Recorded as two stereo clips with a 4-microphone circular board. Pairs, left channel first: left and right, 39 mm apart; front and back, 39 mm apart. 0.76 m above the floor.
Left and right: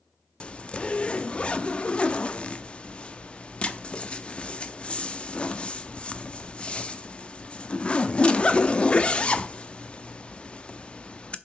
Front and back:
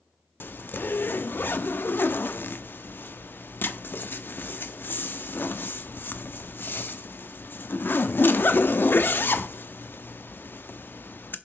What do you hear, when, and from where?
0.4 s a zipper: 30° left, 0.6 m